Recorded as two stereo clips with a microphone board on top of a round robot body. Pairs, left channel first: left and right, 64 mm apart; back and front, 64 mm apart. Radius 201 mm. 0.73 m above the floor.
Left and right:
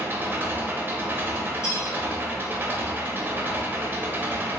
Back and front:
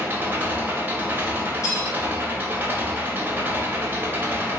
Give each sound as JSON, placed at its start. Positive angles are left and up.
{"t": 0.0, "sound": "an engine running", "azimuth_deg": -50, "distance_m": 0.9}
{"t": 1.6, "sound": "cutlery clinking", "azimuth_deg": 135, "distance_m": 0.9}